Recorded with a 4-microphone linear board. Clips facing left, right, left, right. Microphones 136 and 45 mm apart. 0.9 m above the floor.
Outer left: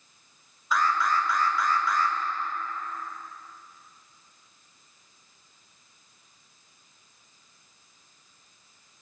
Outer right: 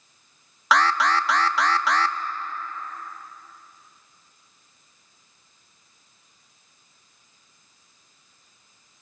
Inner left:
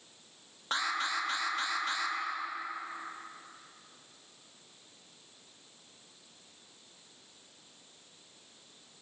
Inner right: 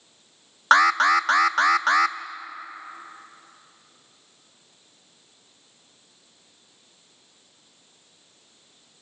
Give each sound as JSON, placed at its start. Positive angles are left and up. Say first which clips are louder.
{"t": 0.7, "sound": "an alarm", "louder": "outer right 4 dB, inner right 16 dB", "side_deg": -75, "distance_m": 0.7}